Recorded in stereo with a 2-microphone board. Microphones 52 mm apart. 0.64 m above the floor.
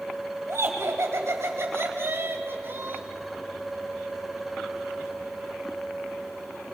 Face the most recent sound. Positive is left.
turn(degrees=-45)  # may be behind; listen again after turning